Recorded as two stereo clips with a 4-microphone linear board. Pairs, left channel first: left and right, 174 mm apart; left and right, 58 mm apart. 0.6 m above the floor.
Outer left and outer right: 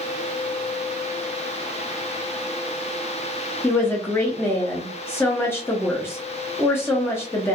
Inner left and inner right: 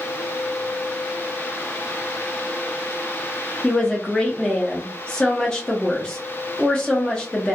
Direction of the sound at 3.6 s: 15° left (ahead or behind).